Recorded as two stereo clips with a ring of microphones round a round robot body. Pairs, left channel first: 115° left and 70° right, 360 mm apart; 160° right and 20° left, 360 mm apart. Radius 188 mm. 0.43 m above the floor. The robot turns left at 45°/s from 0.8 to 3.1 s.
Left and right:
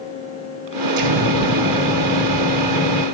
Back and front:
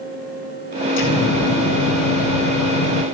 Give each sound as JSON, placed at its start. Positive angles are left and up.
{"t": 1.0, "sound": "an explosion", "azimuth_deg": -100, "distance_m": 2.5}